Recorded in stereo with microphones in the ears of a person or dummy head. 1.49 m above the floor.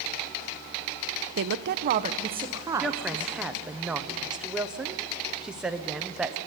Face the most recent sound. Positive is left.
turn(degrees=-5)  # may be behind; listen again after turning